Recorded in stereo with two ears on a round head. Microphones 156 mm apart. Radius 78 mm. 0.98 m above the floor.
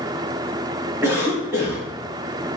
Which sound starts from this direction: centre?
A cough, at 1.0 s.